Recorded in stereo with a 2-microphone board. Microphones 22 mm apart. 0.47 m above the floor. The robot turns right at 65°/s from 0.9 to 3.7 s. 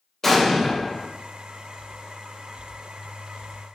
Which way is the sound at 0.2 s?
15° left (ahead or behind).